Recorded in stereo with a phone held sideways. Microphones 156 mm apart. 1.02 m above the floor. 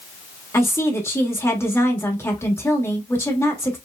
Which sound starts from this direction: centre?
A woman speaking, at 0.5 s.